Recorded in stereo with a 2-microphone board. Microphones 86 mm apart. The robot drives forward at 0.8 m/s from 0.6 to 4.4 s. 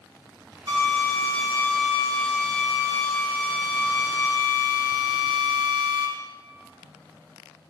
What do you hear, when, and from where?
0.7 s a drill: 55° right (ahead or behind), 5 m; by 6.1 s 80° right, 4 m